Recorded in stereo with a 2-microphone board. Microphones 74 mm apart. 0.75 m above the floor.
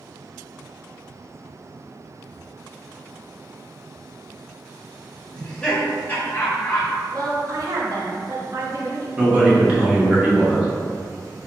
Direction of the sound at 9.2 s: 20° right (ahead or behind).